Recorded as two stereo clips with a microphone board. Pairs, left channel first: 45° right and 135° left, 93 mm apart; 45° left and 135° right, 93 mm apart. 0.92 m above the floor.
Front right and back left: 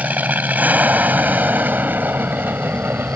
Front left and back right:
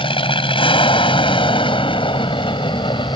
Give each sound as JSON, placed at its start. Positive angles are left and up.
{"t": 0.0, "sound": "an aircraft", "azimuth_deg": 60}